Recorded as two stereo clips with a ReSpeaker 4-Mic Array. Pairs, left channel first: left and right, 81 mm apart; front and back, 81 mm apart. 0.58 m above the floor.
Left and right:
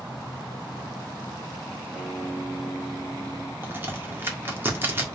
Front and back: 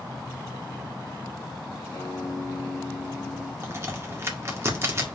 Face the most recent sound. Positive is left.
turn(degrees=-140)